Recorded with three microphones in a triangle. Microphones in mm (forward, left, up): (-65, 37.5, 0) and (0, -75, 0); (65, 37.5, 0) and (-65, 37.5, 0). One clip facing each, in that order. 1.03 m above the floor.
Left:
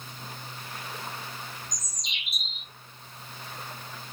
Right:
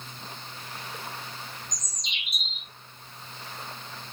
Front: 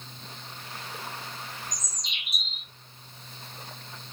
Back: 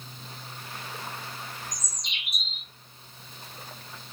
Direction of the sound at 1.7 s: 150° right.